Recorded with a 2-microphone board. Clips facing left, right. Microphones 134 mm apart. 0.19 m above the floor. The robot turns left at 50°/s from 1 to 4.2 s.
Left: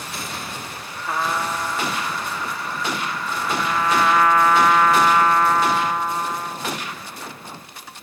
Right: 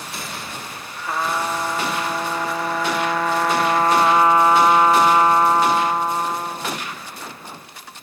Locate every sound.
1.1 s a trumpet: straight ahead; by 6.8 s 155° right